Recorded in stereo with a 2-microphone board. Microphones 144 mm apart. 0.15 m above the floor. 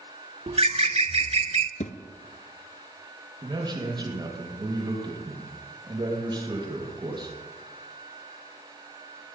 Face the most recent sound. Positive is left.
turn(degrees=-30)  # may be behind; listen again after turning